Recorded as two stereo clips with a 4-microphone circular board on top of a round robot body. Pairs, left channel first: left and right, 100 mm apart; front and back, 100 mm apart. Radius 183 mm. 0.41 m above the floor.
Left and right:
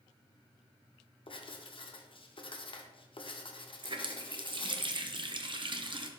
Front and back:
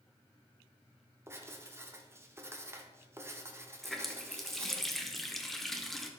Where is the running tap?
85° right, 0.9 m.